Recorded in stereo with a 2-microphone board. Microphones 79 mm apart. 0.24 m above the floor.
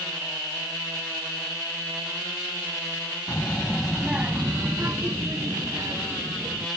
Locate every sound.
3.3 s a child speaking: 35° left (ahead or behind); by 6.7 s 50° right (ahead or behind)